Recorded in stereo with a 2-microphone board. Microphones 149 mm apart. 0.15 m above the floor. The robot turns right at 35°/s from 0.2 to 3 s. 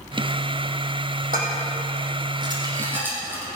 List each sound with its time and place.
1.3 s dishes clattering: 70° right (ahead or behind), 4.5 m; by 3.5 s 10° right (ahead or behind), 4.5 m